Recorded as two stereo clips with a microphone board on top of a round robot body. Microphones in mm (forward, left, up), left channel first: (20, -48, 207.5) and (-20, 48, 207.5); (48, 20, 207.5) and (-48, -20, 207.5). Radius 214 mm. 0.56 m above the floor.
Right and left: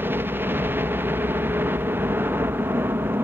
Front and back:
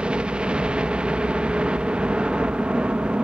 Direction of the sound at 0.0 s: 140° left.